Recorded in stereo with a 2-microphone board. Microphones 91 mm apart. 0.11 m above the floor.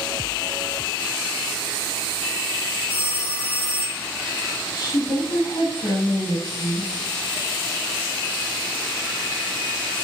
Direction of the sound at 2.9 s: 50° right (ahead or behind).